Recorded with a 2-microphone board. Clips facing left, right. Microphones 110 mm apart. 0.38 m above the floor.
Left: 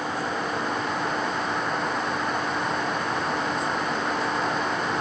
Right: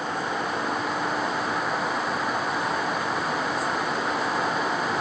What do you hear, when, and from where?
Only background noise.